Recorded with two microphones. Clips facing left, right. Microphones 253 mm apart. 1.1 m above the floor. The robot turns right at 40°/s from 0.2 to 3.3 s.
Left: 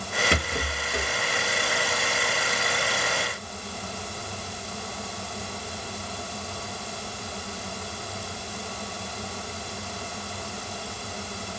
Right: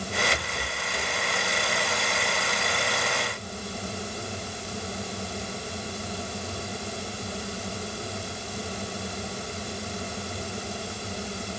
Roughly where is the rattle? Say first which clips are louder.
Left 5 dB; left.